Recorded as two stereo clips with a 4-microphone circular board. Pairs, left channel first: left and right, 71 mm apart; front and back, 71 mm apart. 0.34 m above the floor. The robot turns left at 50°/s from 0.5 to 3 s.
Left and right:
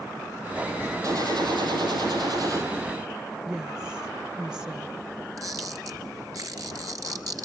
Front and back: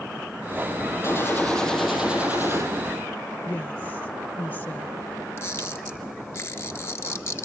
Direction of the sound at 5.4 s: 55° right.